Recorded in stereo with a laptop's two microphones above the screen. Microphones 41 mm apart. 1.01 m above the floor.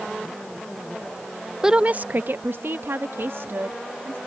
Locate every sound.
1.6 s a woman speaking: 10° right (ahead or behind); by 4.2 s 75° right (ahead or behind)